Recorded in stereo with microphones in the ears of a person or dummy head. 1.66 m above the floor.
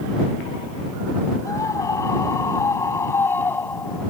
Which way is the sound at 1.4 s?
20° left (ahead or behind).